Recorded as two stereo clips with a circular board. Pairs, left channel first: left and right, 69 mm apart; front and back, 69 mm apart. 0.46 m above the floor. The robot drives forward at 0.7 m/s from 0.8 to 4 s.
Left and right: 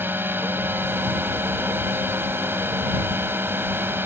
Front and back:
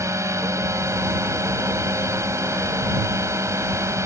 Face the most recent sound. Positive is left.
turn(degrees=-145)